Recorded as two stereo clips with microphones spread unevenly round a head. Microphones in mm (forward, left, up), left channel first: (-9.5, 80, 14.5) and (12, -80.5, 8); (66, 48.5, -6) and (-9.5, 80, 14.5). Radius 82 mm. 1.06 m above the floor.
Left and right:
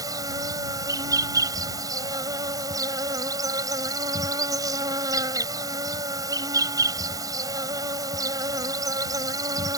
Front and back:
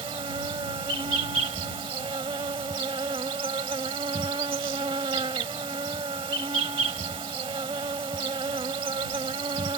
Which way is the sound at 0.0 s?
150° right.